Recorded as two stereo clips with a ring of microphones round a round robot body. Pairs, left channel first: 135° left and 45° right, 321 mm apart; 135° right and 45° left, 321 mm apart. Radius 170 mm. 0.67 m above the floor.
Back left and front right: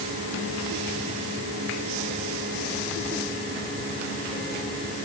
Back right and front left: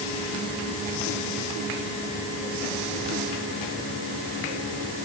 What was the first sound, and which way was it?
Only background noise.